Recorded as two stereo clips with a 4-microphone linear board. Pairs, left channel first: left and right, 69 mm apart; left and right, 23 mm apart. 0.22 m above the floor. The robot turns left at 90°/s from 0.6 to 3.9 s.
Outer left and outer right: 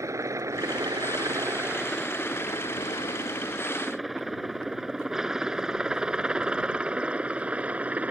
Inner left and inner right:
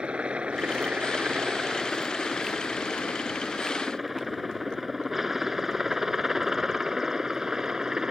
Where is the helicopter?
45° right (ahead or behind); by 8.1 s 20° right (ahead or behind).